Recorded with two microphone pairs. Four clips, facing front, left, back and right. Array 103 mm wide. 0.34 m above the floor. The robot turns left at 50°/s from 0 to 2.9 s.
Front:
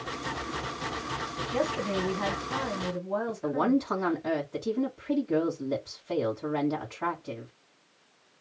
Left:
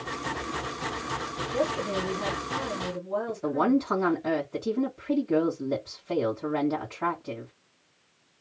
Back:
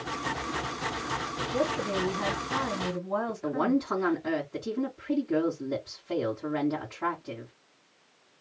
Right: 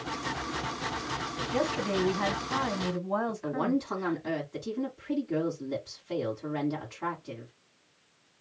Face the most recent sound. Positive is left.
turn(degrees=60)